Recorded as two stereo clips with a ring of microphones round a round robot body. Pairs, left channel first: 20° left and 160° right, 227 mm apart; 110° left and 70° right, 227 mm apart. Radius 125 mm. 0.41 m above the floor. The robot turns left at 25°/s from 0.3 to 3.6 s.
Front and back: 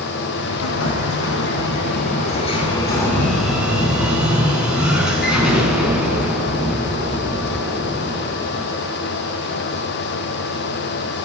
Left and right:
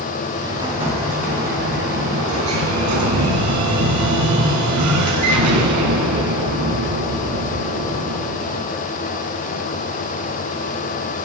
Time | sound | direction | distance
0.4 | an explosion | 10° left | 4 m